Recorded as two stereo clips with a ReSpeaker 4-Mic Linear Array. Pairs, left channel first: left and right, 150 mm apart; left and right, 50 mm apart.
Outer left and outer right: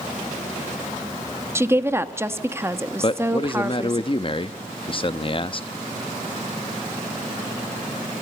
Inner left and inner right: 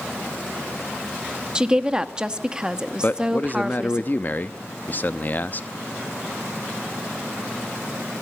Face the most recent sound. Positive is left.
turn(degrees=35)  # may be behind; listen again after turning